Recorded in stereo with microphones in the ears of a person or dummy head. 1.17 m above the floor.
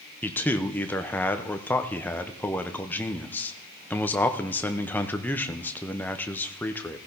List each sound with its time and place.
0.2 s a man speaking: 5° left (ahead or behind), 0.7 m